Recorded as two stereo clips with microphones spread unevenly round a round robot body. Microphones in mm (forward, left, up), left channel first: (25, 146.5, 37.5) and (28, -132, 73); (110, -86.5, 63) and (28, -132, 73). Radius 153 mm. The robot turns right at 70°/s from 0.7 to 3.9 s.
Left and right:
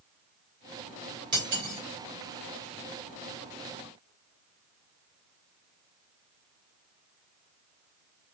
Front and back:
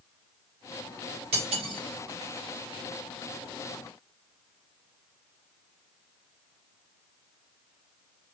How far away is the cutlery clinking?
About 1.9 m.